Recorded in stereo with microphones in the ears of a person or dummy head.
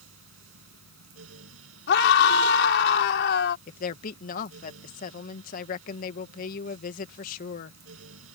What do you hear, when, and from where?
0.0 s a fan: 85° right
1.9 s a scream: 70° left (ahead or behind)
3.7 s a woman speaking: 50° left (ahead or behind)